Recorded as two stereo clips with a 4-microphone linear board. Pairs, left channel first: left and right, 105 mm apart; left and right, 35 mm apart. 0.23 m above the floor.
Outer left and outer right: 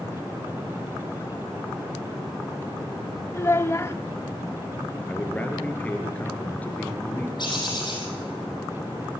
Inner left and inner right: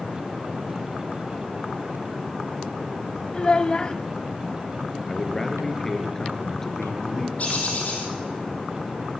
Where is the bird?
50° left (ahead or behind), 6 m.